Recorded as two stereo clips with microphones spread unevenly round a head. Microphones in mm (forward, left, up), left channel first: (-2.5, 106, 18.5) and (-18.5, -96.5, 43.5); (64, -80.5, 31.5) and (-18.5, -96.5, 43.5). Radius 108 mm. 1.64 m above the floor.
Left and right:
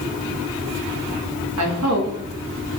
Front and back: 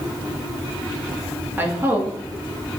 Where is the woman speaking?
105° right, 2.5 m.